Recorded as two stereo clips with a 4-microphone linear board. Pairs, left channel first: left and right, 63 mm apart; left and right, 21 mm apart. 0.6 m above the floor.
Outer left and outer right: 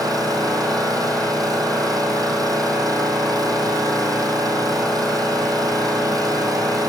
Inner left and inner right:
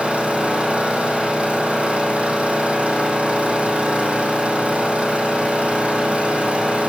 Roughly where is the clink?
I don't hear a clink.